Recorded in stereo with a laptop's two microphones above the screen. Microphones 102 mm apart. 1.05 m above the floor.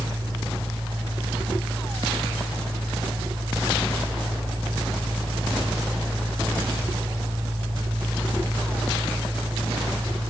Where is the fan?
55° right (ahead or behind), 4.5 m.